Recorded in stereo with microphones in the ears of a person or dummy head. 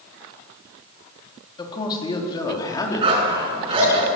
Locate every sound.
1.6 s a man speaking: 35° left (ahead or behind), 3.5 m; by 4.0 s 30° left (ahead or behind), 5 m
3.0 s a dog barking: 20° right (ahead or behind), 5.5 m